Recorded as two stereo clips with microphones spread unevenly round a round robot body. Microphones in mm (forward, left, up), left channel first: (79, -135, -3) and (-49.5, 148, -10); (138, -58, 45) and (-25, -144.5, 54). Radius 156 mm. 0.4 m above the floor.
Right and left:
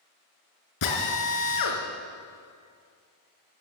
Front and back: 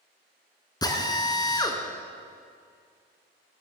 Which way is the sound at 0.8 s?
40° right.